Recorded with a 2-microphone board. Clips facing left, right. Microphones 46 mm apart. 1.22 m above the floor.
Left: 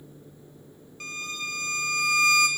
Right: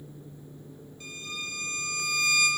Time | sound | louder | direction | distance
1.0 | a violin | left 4 dB | 70° left (ahead or behind) | 1.5 m